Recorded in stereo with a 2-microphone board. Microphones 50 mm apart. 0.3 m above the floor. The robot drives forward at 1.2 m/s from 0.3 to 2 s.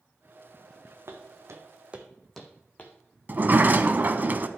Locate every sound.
1.1 s footsteps: 75° right (ahead or behind), 1.6 m; by 2.9 s 35° left (ahead or behind), 1.7 m
3.3 s a sliding door: 40° right (ahead or behind), 0.7 m